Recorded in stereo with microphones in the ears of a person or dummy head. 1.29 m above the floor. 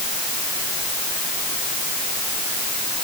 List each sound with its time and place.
Only background noise.